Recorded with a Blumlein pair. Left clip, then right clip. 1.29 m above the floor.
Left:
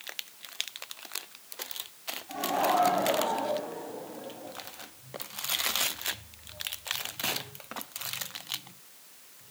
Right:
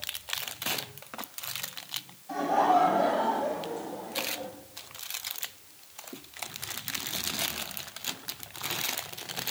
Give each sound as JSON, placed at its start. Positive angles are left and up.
{"t": 2.3, "sound": "laughter", "azimuth_deg": -20, "distance_m": 7.0}